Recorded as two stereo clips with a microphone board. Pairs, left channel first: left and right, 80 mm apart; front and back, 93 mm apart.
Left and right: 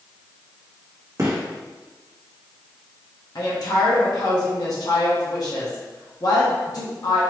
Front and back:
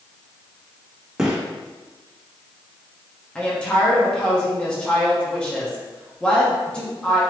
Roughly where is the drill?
No drill in this recording.